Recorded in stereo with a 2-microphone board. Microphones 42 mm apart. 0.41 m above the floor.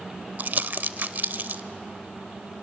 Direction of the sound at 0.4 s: 50° right (ahead or behind).